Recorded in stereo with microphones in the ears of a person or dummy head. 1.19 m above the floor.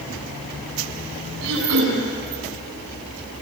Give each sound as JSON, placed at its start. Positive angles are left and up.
{"t": 1.4, "sound": "throat clearing", "side_deg": -75, "distance_m": 8.0}